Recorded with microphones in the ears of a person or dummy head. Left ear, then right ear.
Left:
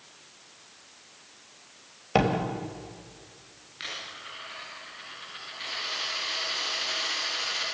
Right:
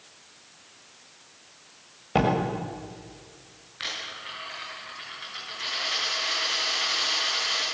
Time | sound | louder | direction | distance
2.1 | a door slam | right 1 dB | 35° left (ahead or behind) | 5 m
3.8 | a dropped coin | right 4 dB | centre (ahead or behind) | 6.5 m